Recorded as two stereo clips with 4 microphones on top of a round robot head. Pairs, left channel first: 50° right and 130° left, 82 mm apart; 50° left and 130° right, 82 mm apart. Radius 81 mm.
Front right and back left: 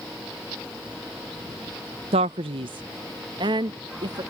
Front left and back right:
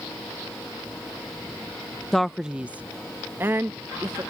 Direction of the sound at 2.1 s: 140° left.